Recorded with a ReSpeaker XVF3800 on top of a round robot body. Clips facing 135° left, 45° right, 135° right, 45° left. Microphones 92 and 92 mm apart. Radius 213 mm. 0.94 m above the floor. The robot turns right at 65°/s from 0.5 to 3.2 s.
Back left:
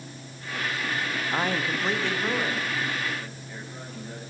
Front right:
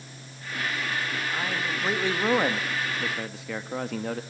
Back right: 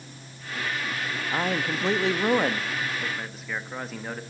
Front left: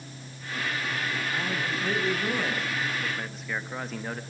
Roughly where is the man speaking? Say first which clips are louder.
Back left 6 dB, back right 3 dB; behind.